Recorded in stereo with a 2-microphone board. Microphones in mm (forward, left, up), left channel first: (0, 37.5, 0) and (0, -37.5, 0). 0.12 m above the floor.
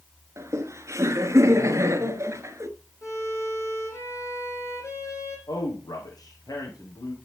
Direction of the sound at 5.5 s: 60° left (ahead or behind).